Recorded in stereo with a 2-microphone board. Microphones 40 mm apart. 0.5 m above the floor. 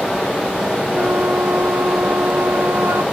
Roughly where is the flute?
Right.